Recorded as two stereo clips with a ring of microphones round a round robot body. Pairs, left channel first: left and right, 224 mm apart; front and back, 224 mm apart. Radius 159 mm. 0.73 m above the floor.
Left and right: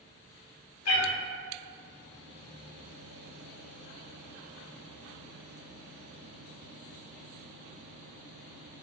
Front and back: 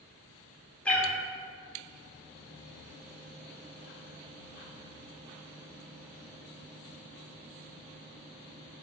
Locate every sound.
0.8 s a cat meowing: 85° left, 0.6 m